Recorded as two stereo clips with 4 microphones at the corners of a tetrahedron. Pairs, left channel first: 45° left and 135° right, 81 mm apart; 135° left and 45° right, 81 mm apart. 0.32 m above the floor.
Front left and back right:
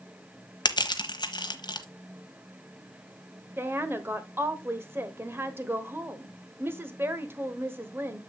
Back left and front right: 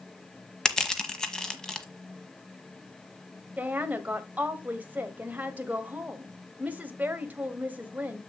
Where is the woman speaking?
95° right, 1.1 m.